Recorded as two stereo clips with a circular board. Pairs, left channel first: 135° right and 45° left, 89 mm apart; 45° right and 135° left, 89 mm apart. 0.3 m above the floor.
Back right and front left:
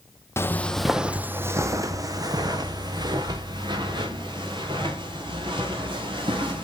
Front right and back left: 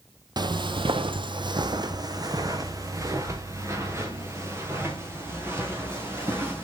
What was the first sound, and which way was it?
Footsteps, 170° left.